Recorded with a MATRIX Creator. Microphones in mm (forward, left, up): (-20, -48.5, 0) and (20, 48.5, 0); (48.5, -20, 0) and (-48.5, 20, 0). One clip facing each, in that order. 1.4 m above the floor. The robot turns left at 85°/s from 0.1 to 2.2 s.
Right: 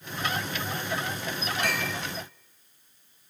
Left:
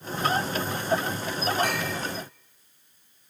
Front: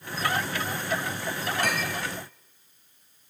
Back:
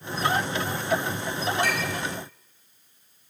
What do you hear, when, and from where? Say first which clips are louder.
1.6 s a clink: left 2 dB, back 1 dB; 15° left, 5 m; by 2.0 s 15° right, 5 m